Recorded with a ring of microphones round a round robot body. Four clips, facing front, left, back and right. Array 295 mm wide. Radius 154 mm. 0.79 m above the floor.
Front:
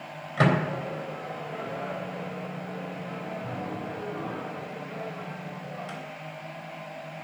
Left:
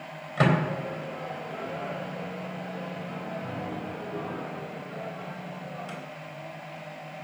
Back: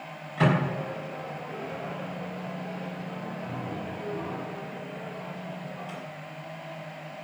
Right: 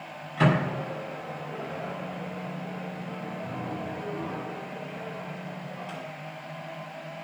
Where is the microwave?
40° left, 4 m.